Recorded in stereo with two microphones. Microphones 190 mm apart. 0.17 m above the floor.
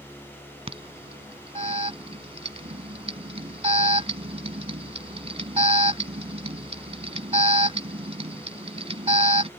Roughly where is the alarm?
Right.